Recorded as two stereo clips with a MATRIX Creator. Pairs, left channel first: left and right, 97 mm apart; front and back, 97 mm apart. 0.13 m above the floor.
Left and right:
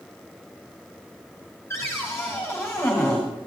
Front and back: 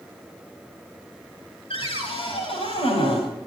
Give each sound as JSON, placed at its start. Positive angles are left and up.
{"t": 1.7, "sound": "a cupboard door", "azimuth_deg": 20, "distance_m": 7.5}